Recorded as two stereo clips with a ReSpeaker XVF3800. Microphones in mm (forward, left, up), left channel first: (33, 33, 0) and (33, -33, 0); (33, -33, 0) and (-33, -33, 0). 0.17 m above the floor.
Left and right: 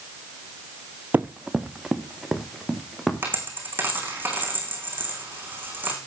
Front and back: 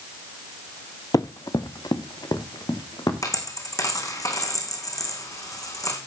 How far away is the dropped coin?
About 4.5 m.